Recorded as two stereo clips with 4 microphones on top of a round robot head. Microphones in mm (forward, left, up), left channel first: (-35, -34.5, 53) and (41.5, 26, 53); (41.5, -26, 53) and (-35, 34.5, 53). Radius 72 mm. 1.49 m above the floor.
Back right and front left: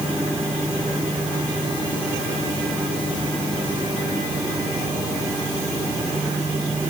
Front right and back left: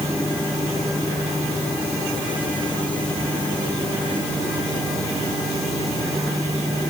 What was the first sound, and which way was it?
Only background noise.